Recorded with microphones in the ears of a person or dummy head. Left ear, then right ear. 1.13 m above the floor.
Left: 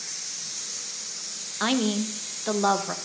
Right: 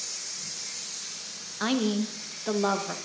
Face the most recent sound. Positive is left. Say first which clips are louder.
# left 2 dB
turn(degrees=20)  # may be behind; listen again after turning